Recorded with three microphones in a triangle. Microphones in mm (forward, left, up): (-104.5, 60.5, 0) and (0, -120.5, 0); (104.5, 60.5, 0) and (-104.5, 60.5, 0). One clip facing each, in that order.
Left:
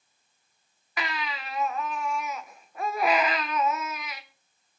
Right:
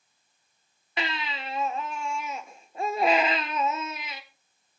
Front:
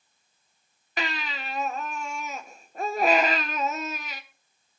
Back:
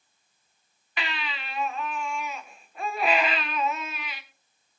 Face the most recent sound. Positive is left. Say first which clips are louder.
# right 1 dB, front 3 dB
turn(degrees=-10)